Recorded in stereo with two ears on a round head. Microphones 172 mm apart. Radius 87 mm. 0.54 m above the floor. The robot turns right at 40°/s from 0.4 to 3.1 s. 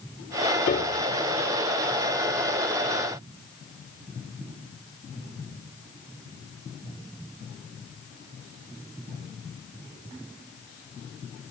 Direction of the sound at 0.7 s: 40° left (ahead or behind).